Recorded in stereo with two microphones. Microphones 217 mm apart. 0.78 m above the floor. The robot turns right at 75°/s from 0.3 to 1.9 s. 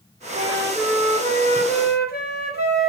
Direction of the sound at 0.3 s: 45° right.